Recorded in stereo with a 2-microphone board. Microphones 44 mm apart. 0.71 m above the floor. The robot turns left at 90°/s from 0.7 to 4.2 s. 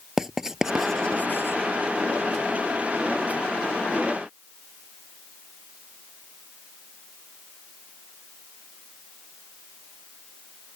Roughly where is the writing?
Centre.